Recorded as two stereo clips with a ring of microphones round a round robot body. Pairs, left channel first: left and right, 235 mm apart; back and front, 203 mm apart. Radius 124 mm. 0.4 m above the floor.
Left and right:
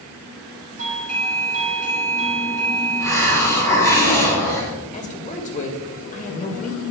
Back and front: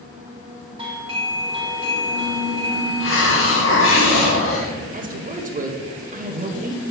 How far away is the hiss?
About 3 m.